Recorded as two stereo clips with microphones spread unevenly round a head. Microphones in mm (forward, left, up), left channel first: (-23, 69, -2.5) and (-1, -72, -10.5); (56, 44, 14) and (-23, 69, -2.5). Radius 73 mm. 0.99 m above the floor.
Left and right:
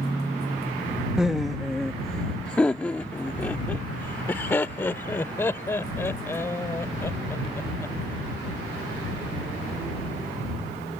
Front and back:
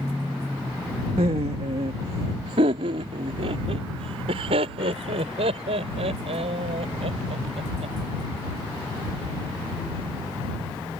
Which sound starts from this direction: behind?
Laughter, at 1.2 s.